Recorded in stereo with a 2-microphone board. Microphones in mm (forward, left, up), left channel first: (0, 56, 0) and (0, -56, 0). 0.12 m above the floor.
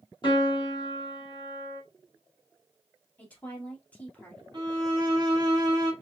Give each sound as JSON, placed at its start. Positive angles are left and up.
{"t": 0.2, "sound": "a piano", "side_deg": 45, "distance_m": 3.0}
{"t": 3.2, "sound": "a woman speaking", "side_deg": 15, "distance_m": 2.5}
{"t": 4.5, "sound": "a violin", "side_deg": -40, "distance_m": 1.8}